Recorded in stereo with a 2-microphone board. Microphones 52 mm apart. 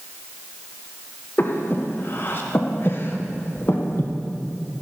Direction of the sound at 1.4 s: 45° left (ahead or behind).